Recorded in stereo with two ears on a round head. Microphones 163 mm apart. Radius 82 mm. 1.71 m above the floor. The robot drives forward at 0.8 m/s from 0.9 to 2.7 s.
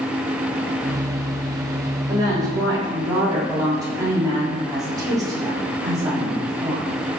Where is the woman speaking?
25° right (ahead or behind), 5 m; by 6.9 s 20° right (ahead or behind), 5.5 m.